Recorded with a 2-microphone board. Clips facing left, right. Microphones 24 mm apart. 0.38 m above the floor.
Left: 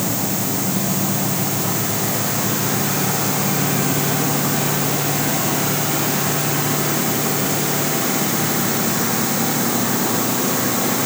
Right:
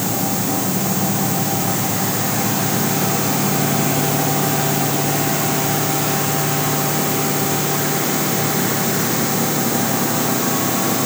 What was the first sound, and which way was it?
Only background noise.